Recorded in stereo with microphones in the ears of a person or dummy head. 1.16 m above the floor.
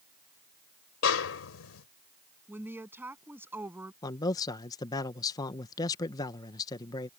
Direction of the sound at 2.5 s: 15° right (ahead or behind).